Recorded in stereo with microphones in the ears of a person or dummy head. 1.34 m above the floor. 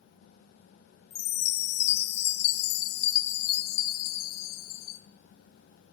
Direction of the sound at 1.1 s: 60° left (ahead or behind).